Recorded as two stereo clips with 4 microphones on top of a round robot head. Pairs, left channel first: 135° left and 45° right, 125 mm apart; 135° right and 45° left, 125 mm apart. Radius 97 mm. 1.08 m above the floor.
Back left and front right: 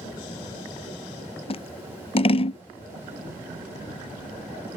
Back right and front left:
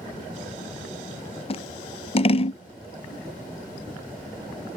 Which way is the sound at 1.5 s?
Straight behind.